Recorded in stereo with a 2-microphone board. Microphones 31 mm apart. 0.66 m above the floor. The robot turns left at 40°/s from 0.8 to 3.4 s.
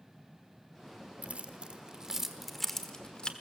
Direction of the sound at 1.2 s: 50° right (ahead or behind).